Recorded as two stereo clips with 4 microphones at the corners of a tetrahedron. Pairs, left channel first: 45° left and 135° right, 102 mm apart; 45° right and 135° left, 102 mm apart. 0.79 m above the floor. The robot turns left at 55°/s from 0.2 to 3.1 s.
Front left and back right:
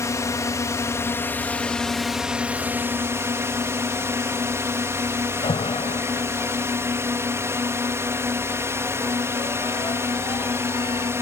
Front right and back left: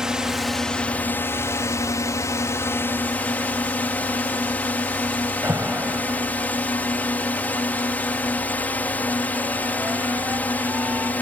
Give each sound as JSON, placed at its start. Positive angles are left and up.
{"t": 0.0, "sound": "a drone", "azimuth_deg": 55}
{"t": 5.4, "sound": "an alarm", "azimuth_deg": 70}